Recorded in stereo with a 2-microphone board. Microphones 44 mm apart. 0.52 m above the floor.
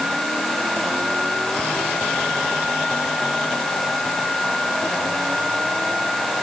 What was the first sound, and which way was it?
Only background noise.